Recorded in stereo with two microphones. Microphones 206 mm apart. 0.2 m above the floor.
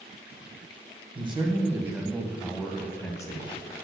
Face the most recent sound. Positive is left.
turn(degrees=25)  # may be behind; listen again after turning